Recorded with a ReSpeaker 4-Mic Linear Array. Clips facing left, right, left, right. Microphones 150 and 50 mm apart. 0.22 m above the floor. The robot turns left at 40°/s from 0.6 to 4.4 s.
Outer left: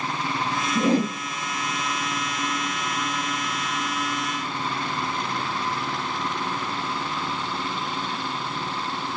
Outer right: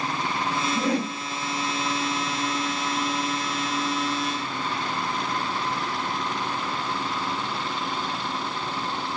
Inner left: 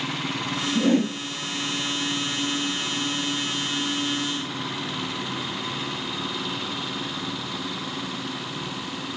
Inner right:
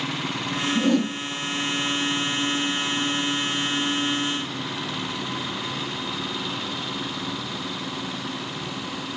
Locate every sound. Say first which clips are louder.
0.8 s a whoosh: outer left 7 dB, inner left 1 dB; 25° left (ahead or behind), 0.7 m; by 1.2 s 45° left (ahead or behind), 0.7 m